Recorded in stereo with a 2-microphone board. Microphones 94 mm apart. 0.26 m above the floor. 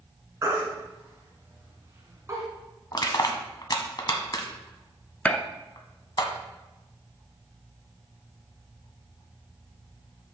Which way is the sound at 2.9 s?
45° left (ahead or behind).